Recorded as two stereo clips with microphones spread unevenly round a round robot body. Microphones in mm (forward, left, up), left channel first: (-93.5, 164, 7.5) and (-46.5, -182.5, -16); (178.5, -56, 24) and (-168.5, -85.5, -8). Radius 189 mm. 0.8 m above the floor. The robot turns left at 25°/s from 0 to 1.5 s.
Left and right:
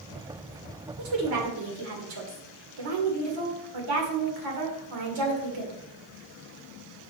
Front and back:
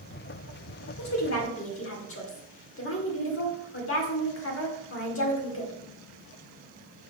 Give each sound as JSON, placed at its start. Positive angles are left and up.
{"t": 1.0, "sound": "a woman speaking", "azimuth_deg": -35, "distance_m": 2.0}